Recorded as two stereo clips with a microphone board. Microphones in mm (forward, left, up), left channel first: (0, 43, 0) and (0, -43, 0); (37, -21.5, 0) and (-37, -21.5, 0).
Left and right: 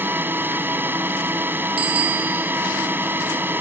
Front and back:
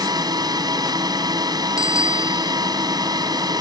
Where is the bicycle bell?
100° right.